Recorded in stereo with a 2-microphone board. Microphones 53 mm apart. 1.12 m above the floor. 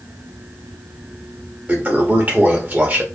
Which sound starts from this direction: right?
A toilet flushing, at 1.7 s.